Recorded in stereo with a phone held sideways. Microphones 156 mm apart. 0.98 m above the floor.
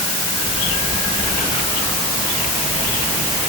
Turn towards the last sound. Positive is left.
No sound to turn to.